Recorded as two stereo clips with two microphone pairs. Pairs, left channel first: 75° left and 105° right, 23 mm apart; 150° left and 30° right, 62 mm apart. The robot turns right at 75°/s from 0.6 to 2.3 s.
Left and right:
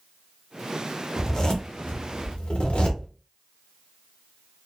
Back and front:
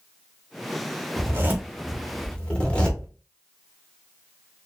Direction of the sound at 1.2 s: Straight ahead.